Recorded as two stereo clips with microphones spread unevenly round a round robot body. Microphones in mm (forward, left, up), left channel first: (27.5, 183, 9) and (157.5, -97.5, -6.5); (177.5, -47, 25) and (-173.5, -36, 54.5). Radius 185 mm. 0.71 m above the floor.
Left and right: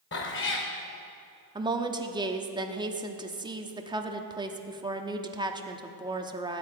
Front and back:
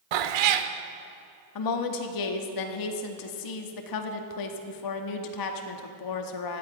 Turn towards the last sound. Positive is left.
turn(degrees=10)